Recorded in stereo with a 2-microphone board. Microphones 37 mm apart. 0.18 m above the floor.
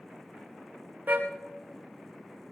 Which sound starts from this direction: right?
A car horn, at 1.1 s.